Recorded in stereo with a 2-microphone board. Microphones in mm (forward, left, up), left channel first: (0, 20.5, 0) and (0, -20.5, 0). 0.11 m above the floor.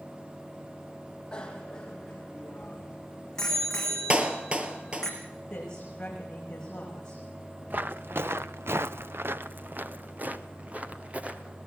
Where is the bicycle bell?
20° left (ahead or behind), 3 m; by 5.1 s 10° left (ahead or behind), 5.5 m.